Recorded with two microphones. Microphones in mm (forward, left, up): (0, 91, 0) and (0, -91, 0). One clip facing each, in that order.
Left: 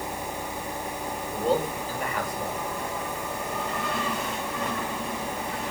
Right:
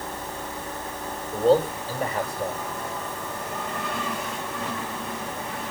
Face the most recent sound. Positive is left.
turn(degrees=-30)  # may be behind; listen again after turning